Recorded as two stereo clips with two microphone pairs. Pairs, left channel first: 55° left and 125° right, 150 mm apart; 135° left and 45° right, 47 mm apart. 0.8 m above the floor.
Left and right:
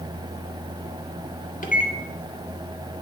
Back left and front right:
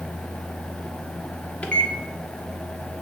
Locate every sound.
1.6 s a microwave: 80° left, 1.4 m